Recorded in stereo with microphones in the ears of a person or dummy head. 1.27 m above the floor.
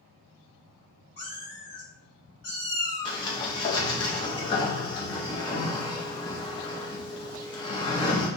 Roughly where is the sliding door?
Left.